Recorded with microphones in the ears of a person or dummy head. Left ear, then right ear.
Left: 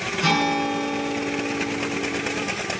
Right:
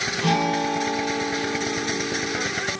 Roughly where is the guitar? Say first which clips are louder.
Left 3 dB; left.